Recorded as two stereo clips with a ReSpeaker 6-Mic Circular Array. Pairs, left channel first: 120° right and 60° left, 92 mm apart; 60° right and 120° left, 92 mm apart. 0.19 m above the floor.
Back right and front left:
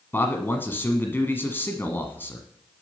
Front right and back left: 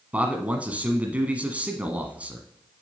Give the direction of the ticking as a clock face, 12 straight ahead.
I don't hear ticking.